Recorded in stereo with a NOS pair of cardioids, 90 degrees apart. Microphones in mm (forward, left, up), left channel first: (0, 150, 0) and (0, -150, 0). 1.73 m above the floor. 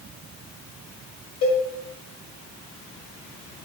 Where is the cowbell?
60° left, 1.6 m.